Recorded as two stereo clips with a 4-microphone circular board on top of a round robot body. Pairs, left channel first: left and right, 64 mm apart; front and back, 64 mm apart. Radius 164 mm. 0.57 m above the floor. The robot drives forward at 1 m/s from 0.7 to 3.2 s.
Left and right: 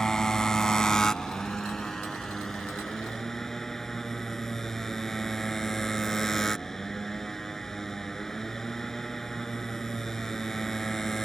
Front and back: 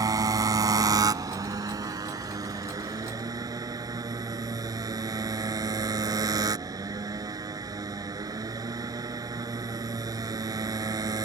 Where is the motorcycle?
170° left; by 11.3 s 175° left.